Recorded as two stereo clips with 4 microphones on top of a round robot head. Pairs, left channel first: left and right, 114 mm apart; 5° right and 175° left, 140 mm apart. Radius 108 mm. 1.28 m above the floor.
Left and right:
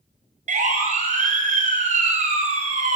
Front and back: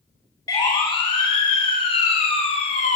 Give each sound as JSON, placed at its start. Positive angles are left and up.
{"t": 0.5, "sound": "a siren", "azimuth_deg": -70, "distance_m": 6.5}